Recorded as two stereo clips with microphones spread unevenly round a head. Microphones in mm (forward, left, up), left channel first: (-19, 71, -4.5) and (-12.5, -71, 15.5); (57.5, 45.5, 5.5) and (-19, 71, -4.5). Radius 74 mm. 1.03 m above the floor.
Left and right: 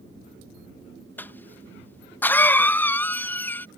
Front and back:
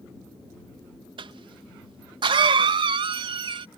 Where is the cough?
165° left.